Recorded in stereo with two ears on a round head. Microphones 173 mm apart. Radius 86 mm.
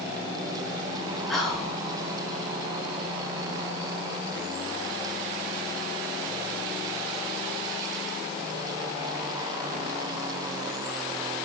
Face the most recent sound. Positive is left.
turn(degrees=0)  # may be behind; listen again after turning